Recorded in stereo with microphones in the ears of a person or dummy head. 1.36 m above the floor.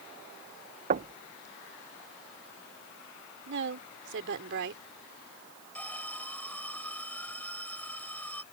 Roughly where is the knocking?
Right.